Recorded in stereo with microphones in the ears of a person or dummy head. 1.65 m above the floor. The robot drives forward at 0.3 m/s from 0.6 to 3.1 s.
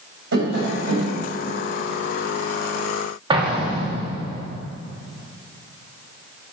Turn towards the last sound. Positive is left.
turn(degrees=-25)  # may be behind; listen again after turning